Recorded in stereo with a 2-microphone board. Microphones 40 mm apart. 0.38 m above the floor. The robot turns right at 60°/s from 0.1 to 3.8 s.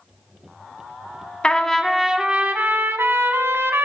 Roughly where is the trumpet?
Behind left.